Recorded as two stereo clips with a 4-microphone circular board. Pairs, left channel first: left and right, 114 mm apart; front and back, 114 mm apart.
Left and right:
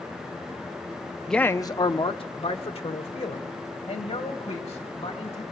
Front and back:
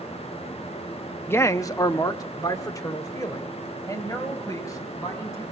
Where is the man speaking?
5° left, 0.6 m; by 5.4 s 60° left, 4.5 m.